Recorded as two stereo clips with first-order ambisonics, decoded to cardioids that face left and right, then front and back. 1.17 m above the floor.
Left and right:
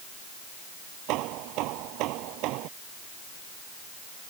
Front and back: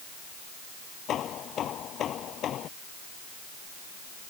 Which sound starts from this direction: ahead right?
Hammering, at 1.1 s.